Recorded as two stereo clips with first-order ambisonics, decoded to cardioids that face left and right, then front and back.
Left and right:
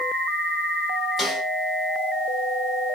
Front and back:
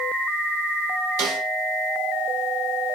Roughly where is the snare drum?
Behind.